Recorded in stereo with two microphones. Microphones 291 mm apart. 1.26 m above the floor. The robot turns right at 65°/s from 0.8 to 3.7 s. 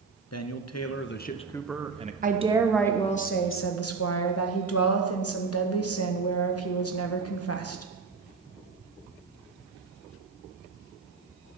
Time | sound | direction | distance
0.3 | a man speaking | 120° left | 0.7 m
2.2 | a woman speaking | 35° right | 1.1 m